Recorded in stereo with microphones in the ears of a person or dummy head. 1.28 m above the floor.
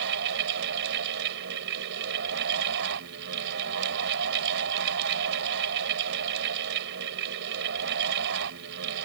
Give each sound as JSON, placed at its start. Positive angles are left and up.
{"t": 0.0, "sound": "a fan", "side_deg": -65}